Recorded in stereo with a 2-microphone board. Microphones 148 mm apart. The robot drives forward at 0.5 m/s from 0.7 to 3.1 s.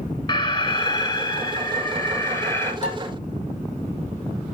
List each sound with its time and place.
0.3 s an alarm: 35° left (ahead or behind), 1.1 m; by 2.7 s 20° left (ahead or behind), 1.9 m
2.8 s dishes clattering: 50° left (ahead or behind), 4.5 m; by 3.0 s 45° left (ahead or behind), 4.5 m